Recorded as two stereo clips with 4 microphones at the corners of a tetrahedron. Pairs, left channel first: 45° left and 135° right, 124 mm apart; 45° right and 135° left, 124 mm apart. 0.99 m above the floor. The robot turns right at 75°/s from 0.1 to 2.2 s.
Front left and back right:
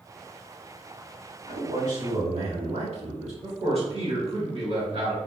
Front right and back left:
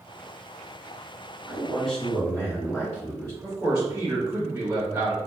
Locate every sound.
1.5 s a man speaking: 160° right, 1.6 m; by 3.3 s 105° right, 1.6 m
3.4 s a man speaking: 150° right, 1.5 m